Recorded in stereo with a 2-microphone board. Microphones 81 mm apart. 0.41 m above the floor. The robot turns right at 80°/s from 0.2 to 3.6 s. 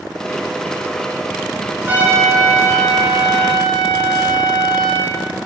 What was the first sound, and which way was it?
A trumpet, 30° right.